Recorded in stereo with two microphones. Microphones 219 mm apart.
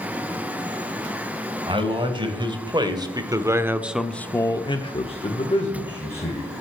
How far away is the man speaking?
About 2.5 m.